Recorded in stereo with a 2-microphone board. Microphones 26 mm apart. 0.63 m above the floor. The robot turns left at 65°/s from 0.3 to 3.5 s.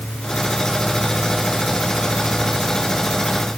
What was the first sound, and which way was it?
Only background noise.